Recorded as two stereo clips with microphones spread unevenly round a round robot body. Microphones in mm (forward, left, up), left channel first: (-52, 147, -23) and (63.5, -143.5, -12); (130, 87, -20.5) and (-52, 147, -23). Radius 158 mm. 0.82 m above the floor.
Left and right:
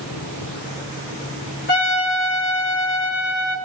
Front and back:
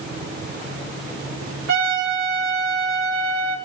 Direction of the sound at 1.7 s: 170° left.